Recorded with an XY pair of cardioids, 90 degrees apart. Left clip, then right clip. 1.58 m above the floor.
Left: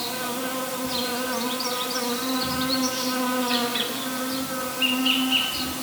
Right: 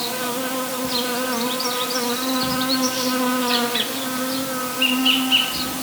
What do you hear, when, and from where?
0.0 s an insect: 50° right, 1.2 m